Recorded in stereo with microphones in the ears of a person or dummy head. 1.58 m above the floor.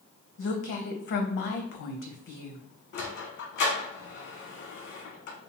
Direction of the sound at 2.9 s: 50° left (ahead or behind).